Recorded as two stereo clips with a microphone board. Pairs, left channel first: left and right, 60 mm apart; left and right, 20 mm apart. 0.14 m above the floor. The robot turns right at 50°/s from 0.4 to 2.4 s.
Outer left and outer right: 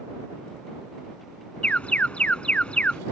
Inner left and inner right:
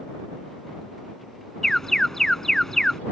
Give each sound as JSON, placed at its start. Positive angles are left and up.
{"t": 1.6, "sound": "an alarm", "side_deg": 20}